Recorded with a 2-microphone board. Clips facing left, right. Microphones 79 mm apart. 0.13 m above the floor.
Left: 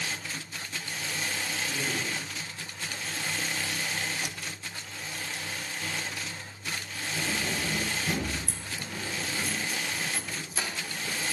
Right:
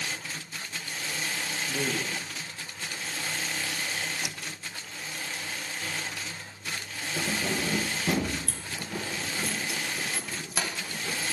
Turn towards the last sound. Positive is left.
turn(degrees=-75)  # may be behind; listen again after turning